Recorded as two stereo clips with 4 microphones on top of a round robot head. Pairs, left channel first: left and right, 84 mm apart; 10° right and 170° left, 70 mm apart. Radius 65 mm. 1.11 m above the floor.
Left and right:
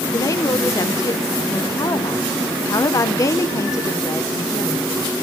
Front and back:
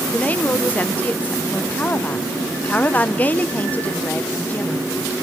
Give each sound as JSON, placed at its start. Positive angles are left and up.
{"t": 0.1, "sound": "a woman speaking", "azimuth_deg": 50, "distance_m": 0.6}